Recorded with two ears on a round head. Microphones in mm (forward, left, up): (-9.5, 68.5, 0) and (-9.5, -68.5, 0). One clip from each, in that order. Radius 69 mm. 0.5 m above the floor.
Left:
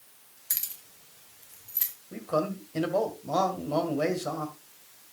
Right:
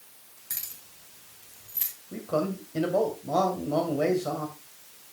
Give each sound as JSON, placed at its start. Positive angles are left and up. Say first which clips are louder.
{"t": 0.5, "sound": "keys jangling", "louder": "left 3 dB", "side_deg": 45, "distance_m": 1.9}
{"t": 2.1, "sound": "a man speaking", "louder": "even", "side_deg": 30, "distance_m": 2.0}